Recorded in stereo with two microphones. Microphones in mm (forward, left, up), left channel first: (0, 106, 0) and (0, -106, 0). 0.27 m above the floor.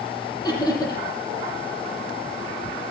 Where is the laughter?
15° left (ahead or behind), 9 m.